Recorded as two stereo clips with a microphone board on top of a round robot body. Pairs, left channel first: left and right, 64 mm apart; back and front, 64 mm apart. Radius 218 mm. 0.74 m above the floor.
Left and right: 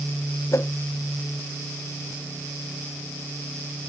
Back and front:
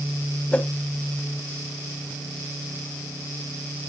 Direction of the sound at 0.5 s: 115° left.